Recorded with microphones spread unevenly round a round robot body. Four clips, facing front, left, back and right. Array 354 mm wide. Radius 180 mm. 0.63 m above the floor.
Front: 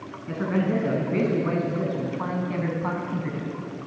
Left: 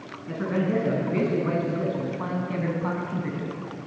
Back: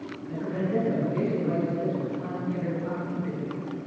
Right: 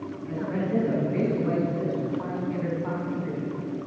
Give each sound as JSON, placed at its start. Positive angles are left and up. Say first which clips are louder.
{"t": 0.3, "sound": "a man speaking", "louder": "left 3 dB, front 4 dB", "azimuth_deg": 25, "distance_m": 8.0}